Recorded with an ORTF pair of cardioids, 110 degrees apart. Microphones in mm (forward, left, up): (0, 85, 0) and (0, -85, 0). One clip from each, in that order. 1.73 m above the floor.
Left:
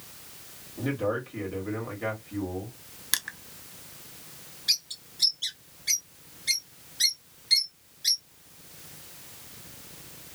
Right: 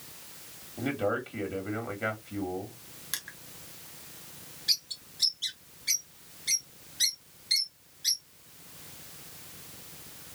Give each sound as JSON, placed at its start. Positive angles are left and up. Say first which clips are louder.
{"t": 0.8, "sound": "a man speaking", "louder": "left 1 dB", "azimuth_deg": -15, "distance_m": 1.8}
{"t": 3.1, "sound": "crushing", "louder": "left 8 dB", "azimuth_deg": 35, "distance_m": 0.5}
{"t": 4.7, "sound": "a bird", "louder": "left 2 dB", "azimuth_deg": 10, "distance_m": 1.2}